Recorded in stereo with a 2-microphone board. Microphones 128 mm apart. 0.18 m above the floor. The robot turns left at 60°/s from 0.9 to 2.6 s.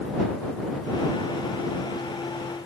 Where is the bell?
No bell in this recording.